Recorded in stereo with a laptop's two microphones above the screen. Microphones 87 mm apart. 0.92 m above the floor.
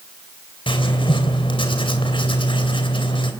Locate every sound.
0.7 s writing: 85° left, 3 m